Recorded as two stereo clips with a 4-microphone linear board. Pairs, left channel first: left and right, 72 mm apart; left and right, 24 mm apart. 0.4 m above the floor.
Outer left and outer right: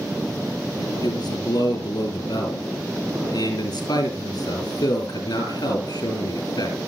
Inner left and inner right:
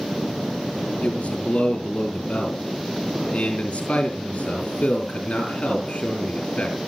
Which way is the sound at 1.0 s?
75° left (ahead or behind).